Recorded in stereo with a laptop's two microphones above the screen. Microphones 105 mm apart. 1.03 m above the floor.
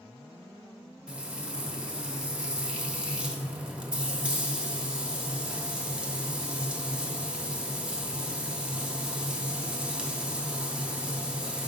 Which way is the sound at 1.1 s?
10° right (ahead or behind).